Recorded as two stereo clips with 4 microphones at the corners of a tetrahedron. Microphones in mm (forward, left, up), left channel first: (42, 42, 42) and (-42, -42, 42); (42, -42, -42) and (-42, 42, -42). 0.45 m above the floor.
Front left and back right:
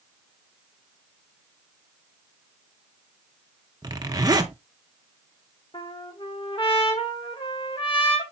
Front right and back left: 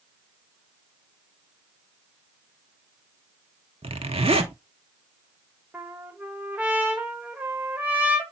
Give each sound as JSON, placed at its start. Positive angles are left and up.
{"t": 3.8, "sound": "a zipper", "azimuth_deg": 170, "distance_m": 1.0}
{"t": 5.7, "sound": "a trumpet", "azimuth_deg": 60, "distance_m": 1.4}